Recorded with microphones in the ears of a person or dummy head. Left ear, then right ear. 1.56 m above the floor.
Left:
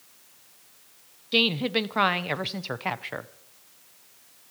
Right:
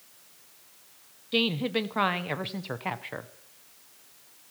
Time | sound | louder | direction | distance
1.3 | a woman speaking | left 4 dB | 10° left (ahead or behind) | 0.8 m